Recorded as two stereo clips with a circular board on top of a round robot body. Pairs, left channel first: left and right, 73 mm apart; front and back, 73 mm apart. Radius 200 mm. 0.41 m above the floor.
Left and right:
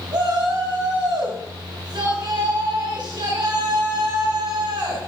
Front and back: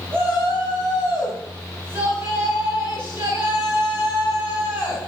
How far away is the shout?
About 6 m.